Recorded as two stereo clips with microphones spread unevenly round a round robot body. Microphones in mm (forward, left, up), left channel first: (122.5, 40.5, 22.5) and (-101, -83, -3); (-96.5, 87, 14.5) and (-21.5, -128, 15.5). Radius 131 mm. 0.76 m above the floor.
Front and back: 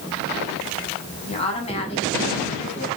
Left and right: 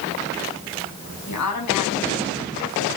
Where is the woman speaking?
95° left, 6.5 m.